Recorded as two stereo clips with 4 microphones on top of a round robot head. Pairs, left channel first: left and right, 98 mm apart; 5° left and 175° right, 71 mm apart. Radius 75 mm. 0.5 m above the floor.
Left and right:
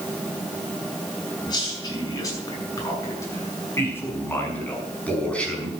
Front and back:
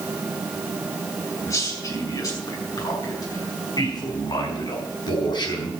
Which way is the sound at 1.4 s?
45° left.